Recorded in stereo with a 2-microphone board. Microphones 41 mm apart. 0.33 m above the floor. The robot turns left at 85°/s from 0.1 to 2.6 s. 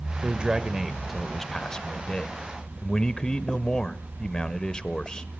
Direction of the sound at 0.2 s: 25° right (ahead or behind).